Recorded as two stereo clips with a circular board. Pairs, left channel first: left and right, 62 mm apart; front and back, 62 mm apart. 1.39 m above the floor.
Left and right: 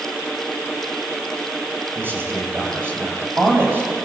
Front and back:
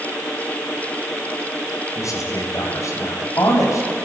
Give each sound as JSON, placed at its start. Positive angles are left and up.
{"t": 1.9, "sound": "a man speaking", "azimuth_deg": -35, "distance_m": 7.5}